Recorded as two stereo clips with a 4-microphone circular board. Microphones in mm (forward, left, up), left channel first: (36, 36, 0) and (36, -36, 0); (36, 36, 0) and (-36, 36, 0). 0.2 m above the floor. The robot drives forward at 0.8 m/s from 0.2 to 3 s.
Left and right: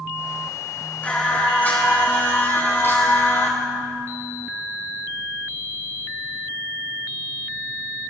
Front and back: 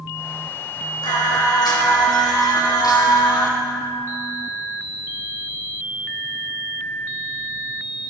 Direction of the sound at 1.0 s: 20° left.